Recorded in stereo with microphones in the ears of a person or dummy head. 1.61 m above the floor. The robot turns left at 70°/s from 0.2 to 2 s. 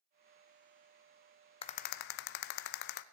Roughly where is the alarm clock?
No alarm clock in this recording.